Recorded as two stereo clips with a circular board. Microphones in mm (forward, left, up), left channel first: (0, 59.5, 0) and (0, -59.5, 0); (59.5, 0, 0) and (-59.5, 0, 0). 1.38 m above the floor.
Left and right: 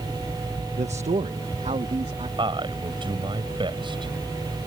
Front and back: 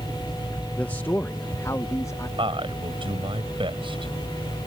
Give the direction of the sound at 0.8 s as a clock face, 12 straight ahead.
3 o'clock.